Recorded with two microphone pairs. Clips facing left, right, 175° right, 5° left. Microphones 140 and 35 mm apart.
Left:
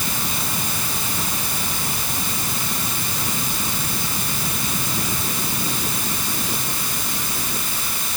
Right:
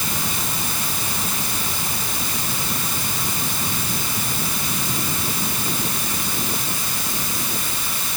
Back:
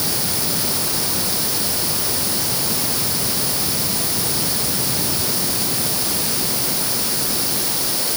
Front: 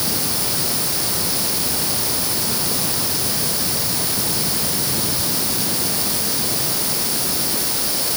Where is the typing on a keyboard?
I don't hear typing on a keyboard.